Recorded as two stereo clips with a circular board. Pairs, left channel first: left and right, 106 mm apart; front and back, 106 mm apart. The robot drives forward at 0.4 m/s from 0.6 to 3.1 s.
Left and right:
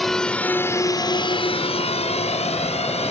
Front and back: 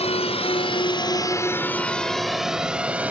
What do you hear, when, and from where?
0.0 s a drone: straight ahead; by 3.1 s 105° left